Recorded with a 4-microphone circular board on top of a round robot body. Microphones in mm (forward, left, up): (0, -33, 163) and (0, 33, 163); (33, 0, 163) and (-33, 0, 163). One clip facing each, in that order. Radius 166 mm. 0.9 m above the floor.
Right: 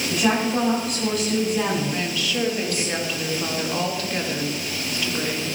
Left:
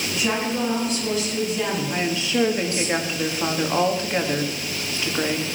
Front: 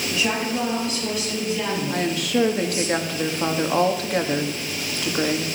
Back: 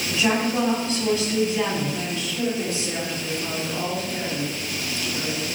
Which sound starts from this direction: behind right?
A woman speaking, at 0.1 s.